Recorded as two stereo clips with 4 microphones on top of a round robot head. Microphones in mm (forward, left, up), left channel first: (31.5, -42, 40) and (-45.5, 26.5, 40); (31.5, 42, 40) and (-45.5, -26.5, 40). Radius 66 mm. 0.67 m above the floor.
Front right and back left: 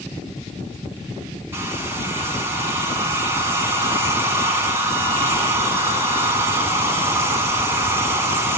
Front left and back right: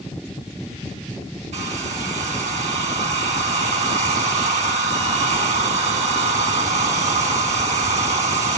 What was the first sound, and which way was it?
A hair dryer, 155° right.